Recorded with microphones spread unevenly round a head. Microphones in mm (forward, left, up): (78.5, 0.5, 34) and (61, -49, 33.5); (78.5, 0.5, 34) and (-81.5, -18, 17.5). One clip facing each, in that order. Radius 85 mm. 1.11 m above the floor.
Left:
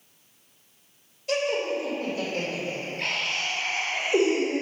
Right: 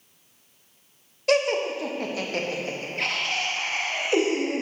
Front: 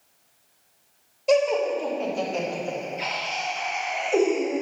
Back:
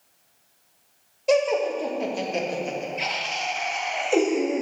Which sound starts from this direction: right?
Laughter, at 1.3 s.